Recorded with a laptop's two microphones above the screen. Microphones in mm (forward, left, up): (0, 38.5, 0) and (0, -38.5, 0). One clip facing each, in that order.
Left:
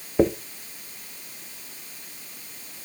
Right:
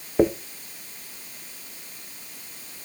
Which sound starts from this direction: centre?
A dropped coin, at 0.2 s.